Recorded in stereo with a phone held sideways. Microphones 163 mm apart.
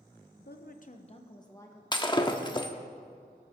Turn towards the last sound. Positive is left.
turn(degrees=30)  # may be behind; listen again after turning